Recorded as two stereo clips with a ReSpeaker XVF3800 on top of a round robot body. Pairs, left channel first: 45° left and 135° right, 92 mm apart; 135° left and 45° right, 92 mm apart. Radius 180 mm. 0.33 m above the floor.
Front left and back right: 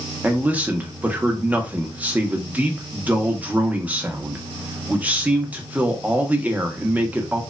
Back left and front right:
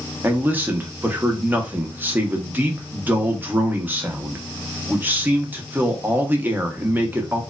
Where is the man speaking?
85° right, 0.8 m.